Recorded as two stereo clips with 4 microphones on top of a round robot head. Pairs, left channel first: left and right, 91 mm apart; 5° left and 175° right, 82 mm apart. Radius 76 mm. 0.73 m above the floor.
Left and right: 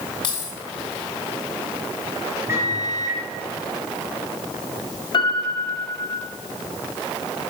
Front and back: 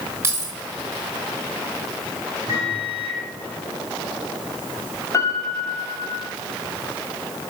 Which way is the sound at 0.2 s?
125° left.